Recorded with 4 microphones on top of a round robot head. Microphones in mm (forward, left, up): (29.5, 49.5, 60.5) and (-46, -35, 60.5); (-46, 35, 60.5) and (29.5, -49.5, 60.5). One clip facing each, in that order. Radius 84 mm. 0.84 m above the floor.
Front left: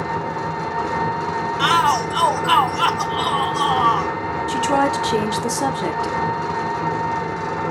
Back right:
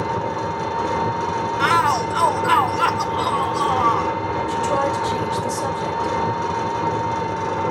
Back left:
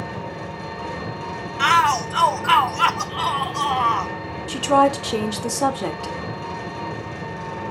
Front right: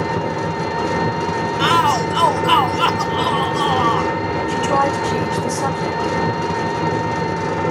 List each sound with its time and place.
0.0 s an engine running: 45° right, 1.2 m
1.6 s a shout: 15° right, 0.7 m
4.5 s a woman speaking: 60° left, 2 m